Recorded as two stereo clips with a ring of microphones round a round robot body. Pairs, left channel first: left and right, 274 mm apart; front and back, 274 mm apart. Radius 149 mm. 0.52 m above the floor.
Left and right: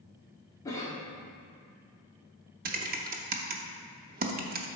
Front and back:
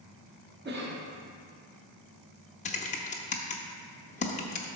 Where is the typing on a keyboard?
50° right, 0.7 m.